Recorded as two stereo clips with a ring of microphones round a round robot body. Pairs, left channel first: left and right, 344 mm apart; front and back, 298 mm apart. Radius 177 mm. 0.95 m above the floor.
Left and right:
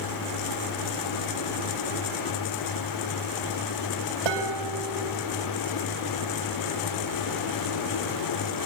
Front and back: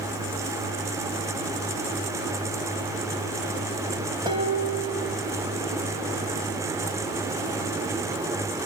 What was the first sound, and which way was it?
Dishes clattering, 100° right.